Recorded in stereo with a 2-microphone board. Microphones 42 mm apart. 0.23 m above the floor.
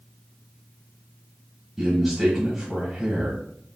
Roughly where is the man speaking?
Centre.